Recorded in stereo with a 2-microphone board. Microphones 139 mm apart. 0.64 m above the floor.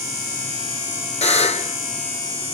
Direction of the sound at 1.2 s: 55° left (ahead or behind).